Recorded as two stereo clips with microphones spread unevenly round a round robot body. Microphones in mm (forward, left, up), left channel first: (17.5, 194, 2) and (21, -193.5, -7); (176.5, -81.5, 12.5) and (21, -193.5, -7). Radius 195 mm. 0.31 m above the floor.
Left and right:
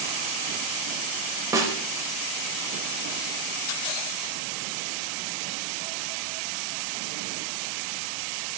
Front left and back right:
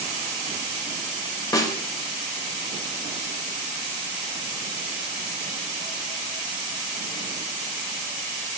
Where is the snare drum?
25° right, 1.0 m.